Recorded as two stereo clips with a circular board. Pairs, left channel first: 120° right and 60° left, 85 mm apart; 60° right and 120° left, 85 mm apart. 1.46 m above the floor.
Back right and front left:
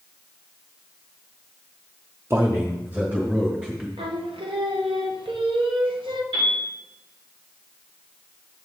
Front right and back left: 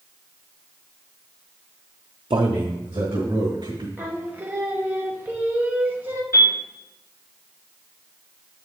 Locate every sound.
2.3 s a man speaking: 120° left, 0.6 m; by 3.9 s 135° left, 3 m
4.0 s singing: 50° left, 1.0 m
6.3 s a piano: 65° left, 4.5 m